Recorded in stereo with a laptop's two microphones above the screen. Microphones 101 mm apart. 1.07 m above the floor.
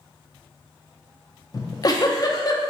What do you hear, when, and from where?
1.5 s a giggle: 40° left (ahead or behind), 0.5 m